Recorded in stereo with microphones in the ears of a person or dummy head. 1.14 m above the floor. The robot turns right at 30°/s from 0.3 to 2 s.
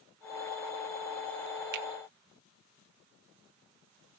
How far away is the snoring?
I don't hear snoring.